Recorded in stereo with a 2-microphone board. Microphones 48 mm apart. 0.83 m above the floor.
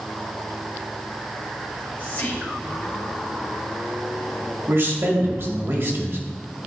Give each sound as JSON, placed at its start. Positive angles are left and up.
{"t": 1.7, "sound": "whispering", "side_deg": 40, "distance_m": 3.5}
{"t": 4.7, "sound": "a man speaking", "side_deg": -50, "distance_m": 1.9}